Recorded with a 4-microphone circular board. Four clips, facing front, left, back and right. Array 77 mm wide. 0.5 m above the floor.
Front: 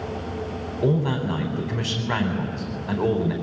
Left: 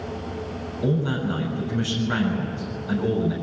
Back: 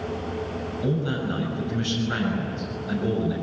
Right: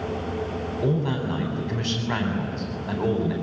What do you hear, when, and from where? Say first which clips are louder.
0.8 s a man speaking: left 2 dB, front 4 dB; 30° right, 4 m